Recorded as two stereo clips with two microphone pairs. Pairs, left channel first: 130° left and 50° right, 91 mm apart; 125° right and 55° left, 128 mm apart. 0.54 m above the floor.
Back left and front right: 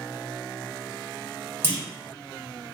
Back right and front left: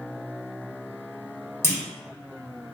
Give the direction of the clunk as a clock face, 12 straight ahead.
3 o'clock.